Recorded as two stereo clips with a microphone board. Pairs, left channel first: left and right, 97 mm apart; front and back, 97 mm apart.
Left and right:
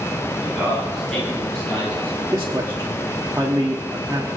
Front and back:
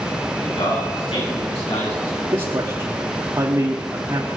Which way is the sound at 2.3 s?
145° right.